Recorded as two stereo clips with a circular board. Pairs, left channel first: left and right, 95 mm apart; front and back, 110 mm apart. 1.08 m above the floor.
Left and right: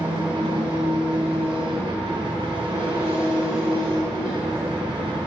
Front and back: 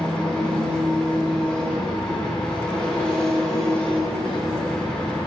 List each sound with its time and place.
0.0 s an engine running: 80° right, 5.5 m